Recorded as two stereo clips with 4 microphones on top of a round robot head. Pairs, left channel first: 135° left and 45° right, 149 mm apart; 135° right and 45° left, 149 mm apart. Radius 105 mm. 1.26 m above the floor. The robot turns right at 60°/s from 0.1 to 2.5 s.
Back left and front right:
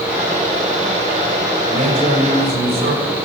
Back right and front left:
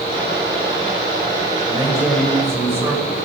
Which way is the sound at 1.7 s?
80° right.